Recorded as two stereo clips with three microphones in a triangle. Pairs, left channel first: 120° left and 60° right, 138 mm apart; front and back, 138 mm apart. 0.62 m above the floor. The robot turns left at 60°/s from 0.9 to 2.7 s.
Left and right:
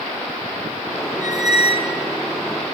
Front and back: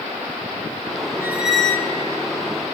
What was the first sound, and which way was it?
A squeak, 110° left.